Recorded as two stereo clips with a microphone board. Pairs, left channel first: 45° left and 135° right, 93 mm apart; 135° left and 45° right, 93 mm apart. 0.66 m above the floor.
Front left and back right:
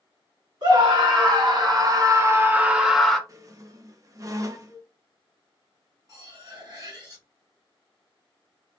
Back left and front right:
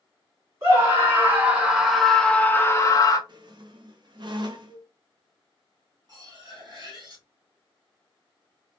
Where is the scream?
105° right, 1.4 m; by 3.2 s 130° left, 0.8 m.